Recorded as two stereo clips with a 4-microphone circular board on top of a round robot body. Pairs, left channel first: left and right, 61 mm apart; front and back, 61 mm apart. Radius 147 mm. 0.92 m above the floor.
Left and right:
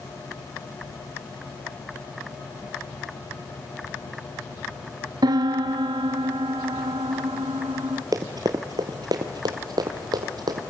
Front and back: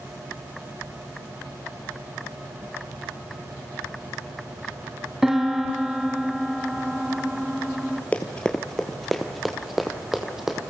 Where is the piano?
95° right, 1.2 m.